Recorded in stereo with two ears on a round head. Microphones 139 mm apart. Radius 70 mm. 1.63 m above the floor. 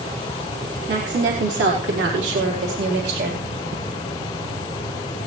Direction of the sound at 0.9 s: 85° right.